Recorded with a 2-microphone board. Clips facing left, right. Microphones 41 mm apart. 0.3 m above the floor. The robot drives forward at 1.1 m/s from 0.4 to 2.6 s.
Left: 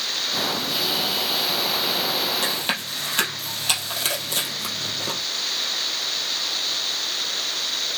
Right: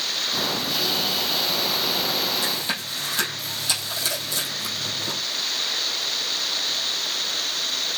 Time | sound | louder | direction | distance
2.4 | chewing | left 2 dB | 55° left (ahead or behind) | 4 m